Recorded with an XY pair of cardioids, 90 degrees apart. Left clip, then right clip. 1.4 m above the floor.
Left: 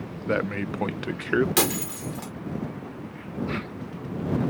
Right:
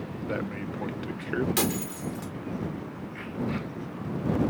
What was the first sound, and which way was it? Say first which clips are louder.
A man speaking: left 7 dB; 60° left.